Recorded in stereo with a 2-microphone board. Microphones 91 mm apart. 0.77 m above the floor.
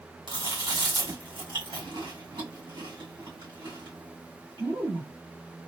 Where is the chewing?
60° right (ahead or behind), 2 m.